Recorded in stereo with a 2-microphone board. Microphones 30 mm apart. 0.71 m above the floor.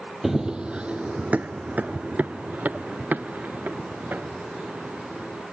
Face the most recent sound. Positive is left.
turn(degrees=-65)  # may be behind; listen again after turning